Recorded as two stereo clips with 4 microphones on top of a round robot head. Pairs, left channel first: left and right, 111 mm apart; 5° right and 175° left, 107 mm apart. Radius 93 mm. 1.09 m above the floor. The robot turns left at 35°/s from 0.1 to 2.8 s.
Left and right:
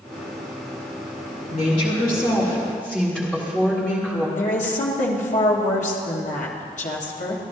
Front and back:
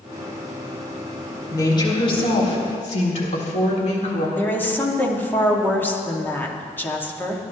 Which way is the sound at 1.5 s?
55° left.